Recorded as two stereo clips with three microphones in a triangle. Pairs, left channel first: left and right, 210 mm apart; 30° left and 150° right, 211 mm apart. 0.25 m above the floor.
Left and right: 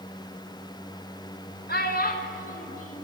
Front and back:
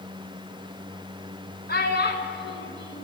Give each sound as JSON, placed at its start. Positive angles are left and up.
{"t": 1.7, "sound": "a child speaking", "azimuth_deg": 60, "distance_m": 1.6}